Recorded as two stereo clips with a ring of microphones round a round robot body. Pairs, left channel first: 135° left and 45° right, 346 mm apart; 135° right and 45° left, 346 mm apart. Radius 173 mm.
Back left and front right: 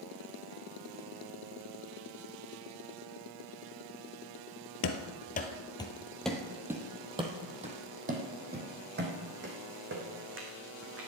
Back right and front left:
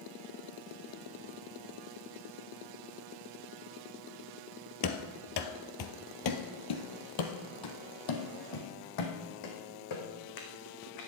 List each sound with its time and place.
4.8 s running footsteps: straight behind, 1.2 m; by 11.1 s 100° right, 4 m